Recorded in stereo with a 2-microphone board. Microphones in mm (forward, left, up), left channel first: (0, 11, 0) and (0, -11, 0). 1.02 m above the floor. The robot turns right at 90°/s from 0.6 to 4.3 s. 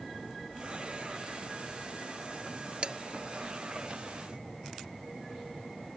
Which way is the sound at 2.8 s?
55° right (ahead or behind).